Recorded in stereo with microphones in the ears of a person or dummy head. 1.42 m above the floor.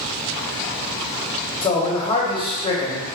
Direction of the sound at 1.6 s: 20° left (ahead or behind).